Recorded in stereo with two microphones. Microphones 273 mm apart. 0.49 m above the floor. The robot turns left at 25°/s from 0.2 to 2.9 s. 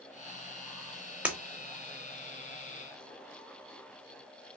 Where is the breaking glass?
5° right (ahead or behind), 0.5 m.